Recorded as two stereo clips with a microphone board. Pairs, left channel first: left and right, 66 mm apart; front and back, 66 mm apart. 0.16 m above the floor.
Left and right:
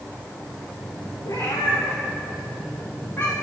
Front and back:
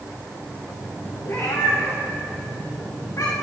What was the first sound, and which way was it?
A cat meowing, 55° left.